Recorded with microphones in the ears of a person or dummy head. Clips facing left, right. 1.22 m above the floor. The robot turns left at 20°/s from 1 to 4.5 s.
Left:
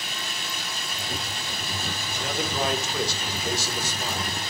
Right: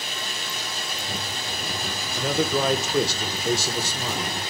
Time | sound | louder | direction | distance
0.0 | running water | right 2 dB | 95° right | 2.5 m
2.1 | a man speaking | right 6 dB | 70° right | 0.7 m